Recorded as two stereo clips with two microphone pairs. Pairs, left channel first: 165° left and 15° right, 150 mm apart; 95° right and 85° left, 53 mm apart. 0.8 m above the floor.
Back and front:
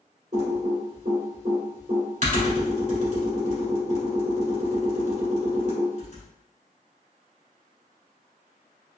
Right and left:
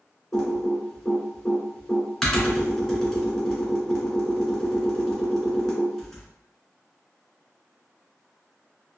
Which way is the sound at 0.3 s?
15° right.